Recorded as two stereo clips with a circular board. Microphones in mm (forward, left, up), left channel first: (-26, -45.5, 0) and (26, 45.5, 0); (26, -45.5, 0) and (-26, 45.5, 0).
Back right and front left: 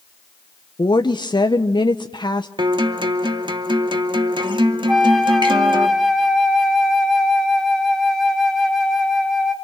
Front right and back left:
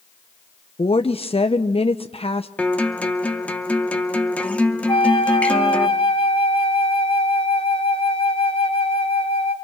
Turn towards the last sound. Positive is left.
turn(degrees=-30)